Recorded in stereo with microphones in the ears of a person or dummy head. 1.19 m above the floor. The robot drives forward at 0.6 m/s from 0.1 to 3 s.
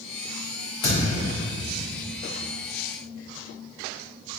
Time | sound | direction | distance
0.8 | a thud | 30° left (ahead or behind) | 1.2 m